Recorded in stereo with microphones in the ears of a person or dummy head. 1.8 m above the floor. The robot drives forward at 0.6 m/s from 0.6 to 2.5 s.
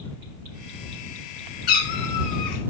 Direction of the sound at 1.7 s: 60° left (ahead or behind).